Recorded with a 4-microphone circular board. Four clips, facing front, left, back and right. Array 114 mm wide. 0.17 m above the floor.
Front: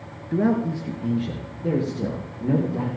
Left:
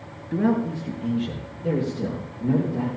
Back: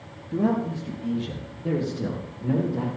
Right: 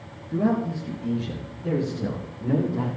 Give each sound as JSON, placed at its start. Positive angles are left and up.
{"t": 0.3, "sound": "a man speaking", "azimuth_deg": 30, "distance_m": 2.0}